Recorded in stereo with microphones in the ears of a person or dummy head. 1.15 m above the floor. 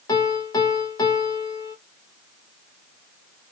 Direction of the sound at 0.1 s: 25° left (ahead or behind).